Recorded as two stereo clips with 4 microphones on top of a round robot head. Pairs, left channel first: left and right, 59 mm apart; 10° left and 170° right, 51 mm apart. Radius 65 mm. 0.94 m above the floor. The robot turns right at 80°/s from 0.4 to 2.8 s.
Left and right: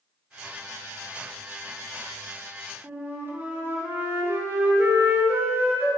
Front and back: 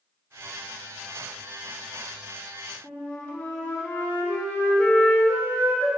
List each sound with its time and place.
2.8 s a flute: 50° right, 0.7 m